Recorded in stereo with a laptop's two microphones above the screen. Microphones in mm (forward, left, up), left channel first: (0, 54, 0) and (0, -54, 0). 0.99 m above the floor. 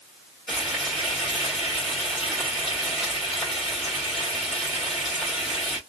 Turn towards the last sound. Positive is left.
turn(degrees=0)  # may be behind; listen again after turning